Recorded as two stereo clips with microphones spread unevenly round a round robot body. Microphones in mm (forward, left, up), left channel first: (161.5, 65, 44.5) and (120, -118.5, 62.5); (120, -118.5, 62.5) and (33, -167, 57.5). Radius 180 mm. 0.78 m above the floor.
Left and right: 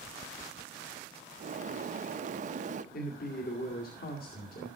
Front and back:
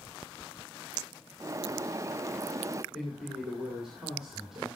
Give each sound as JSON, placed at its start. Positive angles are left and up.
{"t": 1.4, "sound": "a bird", "azimuth_deg": -120, "distance_m": 0.6}
{"t": 2.9, "sound": "a man speaking", "azimuth_deg": 120, "distance_m": 2.0}